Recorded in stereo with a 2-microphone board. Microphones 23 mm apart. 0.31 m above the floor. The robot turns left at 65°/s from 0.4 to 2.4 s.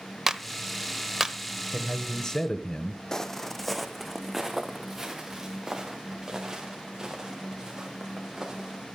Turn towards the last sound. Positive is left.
turn(degrees=-25)  # may be behind; listen again after turning